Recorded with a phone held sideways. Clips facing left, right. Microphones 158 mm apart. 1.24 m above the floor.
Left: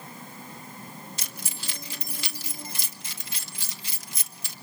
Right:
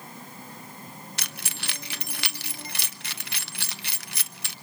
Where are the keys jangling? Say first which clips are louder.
Right 1 dB; 70° right (ahead or behind), 1.0 m.